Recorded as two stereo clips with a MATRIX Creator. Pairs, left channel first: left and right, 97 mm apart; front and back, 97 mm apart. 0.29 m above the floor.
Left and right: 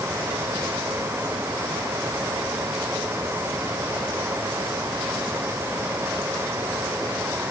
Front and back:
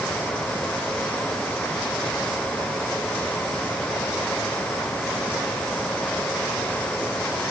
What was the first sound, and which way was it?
Only background noise.